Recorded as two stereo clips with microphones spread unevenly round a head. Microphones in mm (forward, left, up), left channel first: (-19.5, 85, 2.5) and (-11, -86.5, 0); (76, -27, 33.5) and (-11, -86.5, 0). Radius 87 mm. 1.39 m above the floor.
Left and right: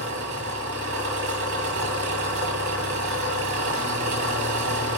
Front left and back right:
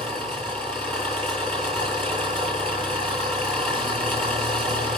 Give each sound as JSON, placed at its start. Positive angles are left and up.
{"t": 0.0, "sound": "an engine running", "azimuth_deg": -50, "distance_m": 9.0}